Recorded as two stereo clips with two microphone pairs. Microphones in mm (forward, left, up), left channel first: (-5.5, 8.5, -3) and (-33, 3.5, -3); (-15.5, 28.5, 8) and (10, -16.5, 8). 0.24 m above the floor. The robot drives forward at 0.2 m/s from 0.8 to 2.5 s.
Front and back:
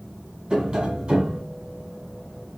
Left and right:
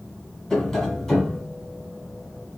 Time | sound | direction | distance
0.5 | tapping | 170° right | 1.1 m